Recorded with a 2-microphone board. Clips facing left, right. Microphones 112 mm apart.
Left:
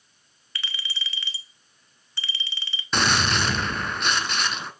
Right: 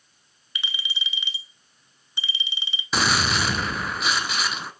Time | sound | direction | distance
0.6 | a clink | 15° right (ahead or behind) | 0.6 m
2.9 | a gunshot | 5° right (ahead or behind) | 0.6 m